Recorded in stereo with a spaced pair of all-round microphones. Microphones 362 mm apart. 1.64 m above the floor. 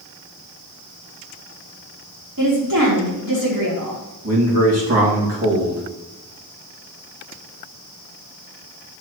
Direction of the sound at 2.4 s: 60° right (ahead or behind).